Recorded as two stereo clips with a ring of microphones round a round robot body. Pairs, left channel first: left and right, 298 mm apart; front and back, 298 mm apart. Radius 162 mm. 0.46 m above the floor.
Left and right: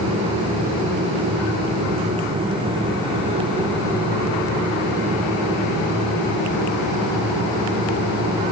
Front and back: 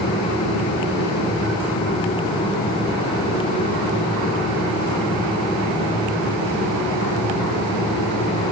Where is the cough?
I don't hear a cough.